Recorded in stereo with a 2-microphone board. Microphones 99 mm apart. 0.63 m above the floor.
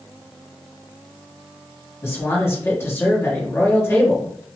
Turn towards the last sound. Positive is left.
turn(degrees=25)  # may be behind; listen again after turning